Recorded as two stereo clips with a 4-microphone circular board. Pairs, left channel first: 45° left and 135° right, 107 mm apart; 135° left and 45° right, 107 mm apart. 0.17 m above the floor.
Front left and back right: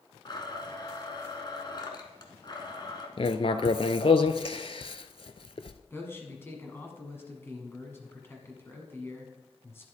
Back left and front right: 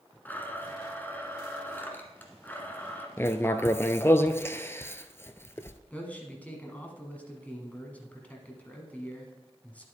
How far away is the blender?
About 1.3 m.